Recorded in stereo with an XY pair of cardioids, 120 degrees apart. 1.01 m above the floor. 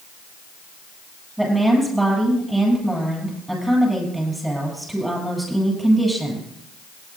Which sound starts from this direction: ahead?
A woman speaking, at 1.4 s.